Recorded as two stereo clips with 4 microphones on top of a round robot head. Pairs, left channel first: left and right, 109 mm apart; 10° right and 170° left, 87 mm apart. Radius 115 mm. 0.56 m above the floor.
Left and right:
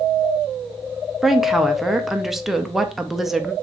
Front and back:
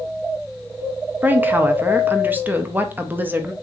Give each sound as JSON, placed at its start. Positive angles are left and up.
{"t": 1.2, "sound": "a woman speaking", "azimuth_deg": -175, "distance_m": 0.7}